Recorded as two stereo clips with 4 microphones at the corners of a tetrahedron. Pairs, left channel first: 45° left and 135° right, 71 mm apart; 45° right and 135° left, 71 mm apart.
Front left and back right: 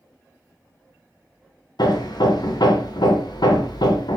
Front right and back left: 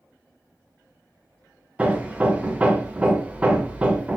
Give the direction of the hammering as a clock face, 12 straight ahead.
10 o'clock.